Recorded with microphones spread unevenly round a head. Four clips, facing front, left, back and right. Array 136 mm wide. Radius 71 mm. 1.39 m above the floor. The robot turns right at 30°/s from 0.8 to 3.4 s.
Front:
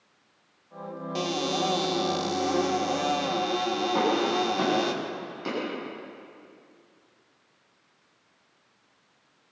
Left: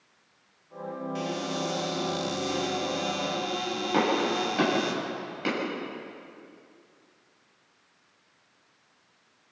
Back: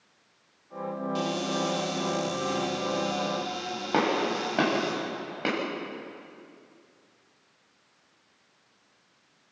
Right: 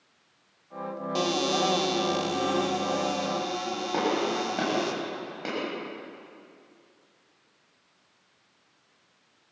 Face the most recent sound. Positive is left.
turn(degrees=-170)